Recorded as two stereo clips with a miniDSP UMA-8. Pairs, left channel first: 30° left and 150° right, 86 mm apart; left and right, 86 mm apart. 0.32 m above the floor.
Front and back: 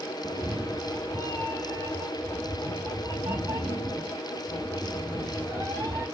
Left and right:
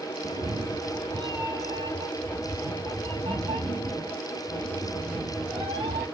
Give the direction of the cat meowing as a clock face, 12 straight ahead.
3 o'clock.